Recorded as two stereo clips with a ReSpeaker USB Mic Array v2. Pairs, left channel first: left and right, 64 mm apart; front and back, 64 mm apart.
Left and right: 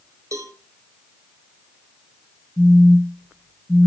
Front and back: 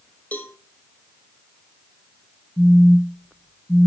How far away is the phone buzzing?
About 0.8 m.